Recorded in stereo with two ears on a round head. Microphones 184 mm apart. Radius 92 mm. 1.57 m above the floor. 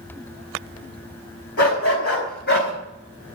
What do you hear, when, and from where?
1.6 s a dog barking: 55° left (ahead or behind), 4.5 m